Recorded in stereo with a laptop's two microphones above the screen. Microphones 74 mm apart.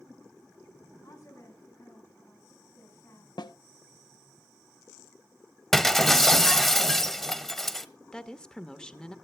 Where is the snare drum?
85° left, 0.6 m.